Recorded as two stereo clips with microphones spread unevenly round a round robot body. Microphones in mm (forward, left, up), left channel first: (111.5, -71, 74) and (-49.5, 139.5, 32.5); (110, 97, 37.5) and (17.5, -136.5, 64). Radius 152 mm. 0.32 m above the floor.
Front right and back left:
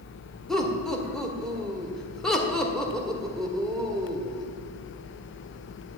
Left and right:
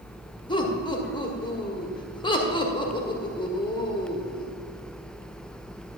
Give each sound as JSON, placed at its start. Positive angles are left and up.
{"t": 0.5, "sound": "laughter", "azimuth_deg": 55, "distance_m": 1.6}